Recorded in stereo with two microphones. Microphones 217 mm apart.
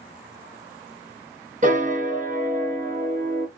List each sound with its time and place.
1.6 s a piano: 35° right (ahead or behind), 1.1 m